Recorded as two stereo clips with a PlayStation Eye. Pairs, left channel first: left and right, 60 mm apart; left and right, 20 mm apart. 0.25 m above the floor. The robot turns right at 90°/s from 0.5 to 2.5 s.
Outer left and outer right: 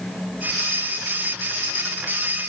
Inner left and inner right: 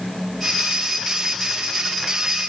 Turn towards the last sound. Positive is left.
No sound to turn to.